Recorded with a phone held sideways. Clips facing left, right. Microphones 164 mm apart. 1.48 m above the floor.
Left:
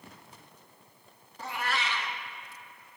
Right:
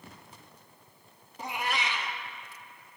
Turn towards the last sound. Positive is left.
turn(degrees=-15)  # may be behind; listen again after turning